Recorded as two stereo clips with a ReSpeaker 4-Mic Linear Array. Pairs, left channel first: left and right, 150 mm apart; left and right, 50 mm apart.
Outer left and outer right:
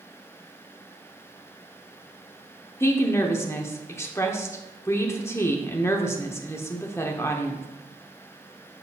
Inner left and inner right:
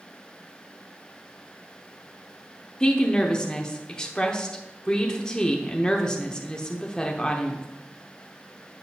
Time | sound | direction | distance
2.8 | a woman speaking | 20° left (ahead or behind) | 0.7 m